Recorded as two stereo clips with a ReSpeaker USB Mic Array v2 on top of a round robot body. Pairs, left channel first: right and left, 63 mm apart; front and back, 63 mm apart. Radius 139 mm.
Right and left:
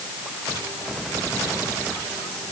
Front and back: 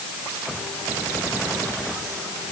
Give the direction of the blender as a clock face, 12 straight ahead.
No blender in this recording.